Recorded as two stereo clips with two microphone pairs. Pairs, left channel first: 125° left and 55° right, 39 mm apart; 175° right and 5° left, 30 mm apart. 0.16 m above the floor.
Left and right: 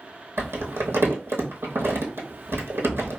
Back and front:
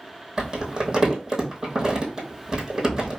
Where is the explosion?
I don't hear an explosion.